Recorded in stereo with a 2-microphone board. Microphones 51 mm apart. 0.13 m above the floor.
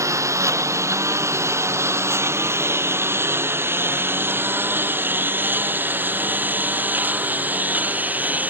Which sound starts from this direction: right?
A lawn mower, at 0.0 s.